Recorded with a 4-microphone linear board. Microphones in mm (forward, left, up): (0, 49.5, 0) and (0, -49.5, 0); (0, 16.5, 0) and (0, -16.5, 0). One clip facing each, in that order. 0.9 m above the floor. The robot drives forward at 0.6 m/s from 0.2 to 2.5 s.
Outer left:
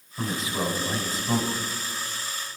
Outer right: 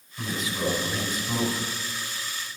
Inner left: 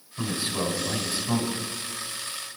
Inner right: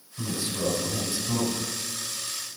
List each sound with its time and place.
0.2 s a man speaking: 35° left (ahead or behind), 6.5 m; by 1.6 s 40° left (ahead or behind), 6 m